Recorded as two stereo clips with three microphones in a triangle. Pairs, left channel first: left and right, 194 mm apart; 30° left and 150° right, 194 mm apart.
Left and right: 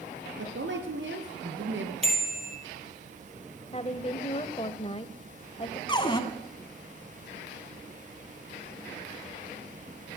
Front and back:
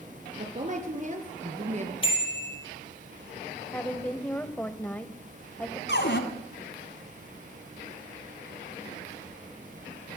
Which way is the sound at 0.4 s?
100° right.